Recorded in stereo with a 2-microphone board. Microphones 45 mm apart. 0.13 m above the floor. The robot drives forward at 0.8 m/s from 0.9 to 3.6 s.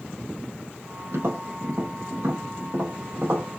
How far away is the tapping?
About 5 m.